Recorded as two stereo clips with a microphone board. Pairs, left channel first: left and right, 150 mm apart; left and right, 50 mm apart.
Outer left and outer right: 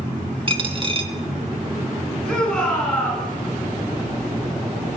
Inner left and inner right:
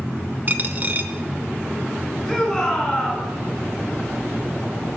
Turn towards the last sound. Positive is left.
turn(degrees=5)  # may be behind; listen again after turning